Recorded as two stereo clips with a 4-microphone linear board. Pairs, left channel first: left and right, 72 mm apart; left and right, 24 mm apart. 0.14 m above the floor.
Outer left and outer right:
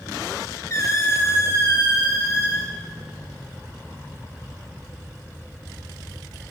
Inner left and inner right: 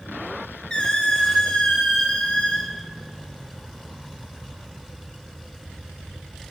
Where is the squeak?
45° left (ahead or behind), 0.5 m.